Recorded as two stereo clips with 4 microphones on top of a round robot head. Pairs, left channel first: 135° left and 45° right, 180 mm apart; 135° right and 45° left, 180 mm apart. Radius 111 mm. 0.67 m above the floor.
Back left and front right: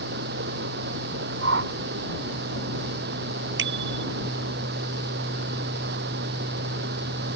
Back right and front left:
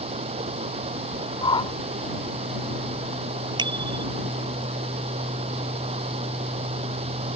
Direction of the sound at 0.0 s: 15° right.